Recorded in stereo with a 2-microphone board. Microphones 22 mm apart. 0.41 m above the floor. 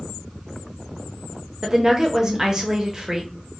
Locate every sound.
1.6 s a woman speaking: 30° right (ahead or behind), 1.0 m